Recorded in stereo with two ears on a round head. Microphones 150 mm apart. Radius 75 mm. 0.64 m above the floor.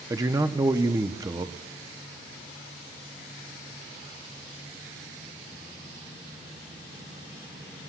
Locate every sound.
0.1 s a man speaking: 20° right (ahead or behind), 0.6 m